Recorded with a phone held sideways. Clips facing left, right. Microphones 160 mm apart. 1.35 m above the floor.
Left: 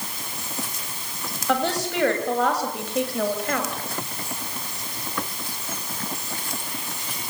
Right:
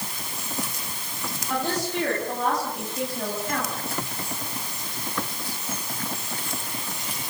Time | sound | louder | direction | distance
1.5 | a woman speaking | left 3 dB | 85° left | 8.5 m